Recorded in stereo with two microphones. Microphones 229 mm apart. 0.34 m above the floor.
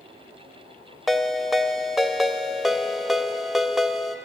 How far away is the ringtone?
About 0.6 m.